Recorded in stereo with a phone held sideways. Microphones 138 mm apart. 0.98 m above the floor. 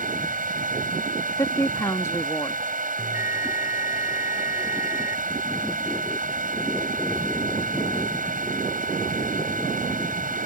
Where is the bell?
20° right (ahead or behind).